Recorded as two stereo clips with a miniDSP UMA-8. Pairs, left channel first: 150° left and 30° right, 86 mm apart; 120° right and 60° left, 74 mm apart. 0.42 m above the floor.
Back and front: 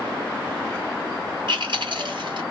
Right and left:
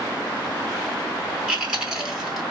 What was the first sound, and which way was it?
Chewing, 20° right.